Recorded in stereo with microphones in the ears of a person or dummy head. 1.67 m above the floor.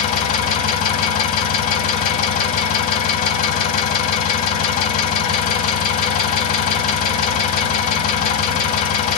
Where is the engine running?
45° left (ahead or behind), 2 m.